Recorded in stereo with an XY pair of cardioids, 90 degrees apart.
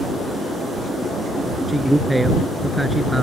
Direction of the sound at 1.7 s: 10° right.